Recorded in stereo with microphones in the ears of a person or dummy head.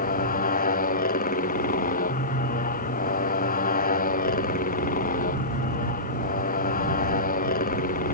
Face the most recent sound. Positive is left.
turn(degrees=45)  # may be behind; listen again after turning